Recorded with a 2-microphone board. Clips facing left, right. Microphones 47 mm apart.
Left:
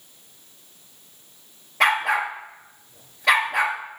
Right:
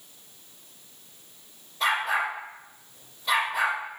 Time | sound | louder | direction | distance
1.8 | a dog barking | left 5 dB | 75° left (ahead or behind) | 1.8 m